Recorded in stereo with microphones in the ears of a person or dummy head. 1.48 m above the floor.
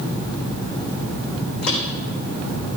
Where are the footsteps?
70° left (ahead or behind), 5 m; by 2.8 s 75° left (ahead or behind), 5 m.